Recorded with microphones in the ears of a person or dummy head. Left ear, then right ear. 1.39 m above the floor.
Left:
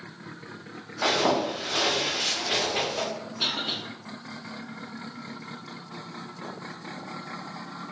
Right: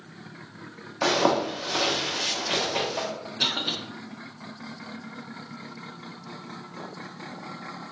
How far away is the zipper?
About 1.3 m.